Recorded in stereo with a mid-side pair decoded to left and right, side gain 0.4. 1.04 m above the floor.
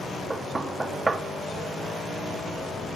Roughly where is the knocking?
Ahead right.